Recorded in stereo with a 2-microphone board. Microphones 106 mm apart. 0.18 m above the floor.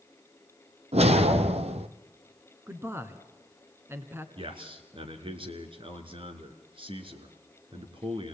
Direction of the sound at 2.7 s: 20° right (ahead or behind).